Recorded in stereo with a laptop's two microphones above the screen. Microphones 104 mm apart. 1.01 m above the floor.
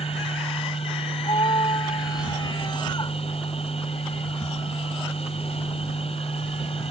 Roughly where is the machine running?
Left.